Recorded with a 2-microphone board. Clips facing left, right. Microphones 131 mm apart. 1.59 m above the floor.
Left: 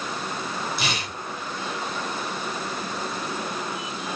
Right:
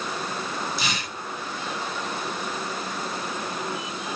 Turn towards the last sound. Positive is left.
turn(degrees=65)  # may be behind; listen again after turning